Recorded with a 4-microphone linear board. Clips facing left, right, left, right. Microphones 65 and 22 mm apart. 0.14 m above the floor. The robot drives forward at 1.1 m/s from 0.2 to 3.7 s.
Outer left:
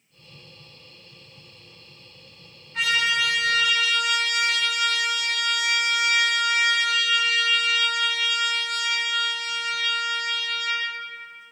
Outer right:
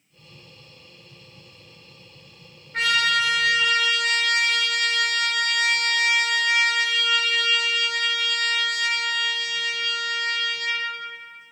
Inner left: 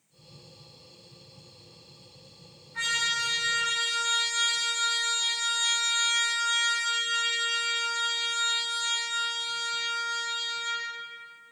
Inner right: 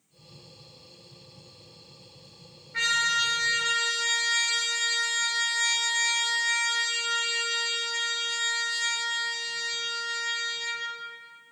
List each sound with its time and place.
2.7 s a trumpet: 60° right (ahead or behind), 1.7 m; by 10.8 s 50° right (ahead or behind), 1.8 m